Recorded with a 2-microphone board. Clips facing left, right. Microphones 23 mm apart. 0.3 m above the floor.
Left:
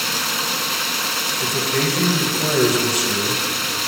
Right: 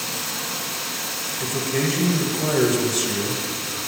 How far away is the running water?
About 0.7 m.